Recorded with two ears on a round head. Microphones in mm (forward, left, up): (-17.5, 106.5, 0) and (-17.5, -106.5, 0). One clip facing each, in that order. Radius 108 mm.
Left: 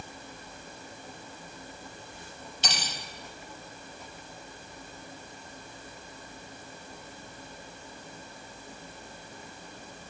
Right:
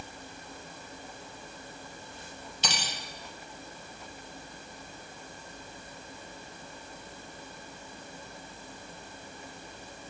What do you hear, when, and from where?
2.6 s cutlery clinking: 80° right, 3.5 m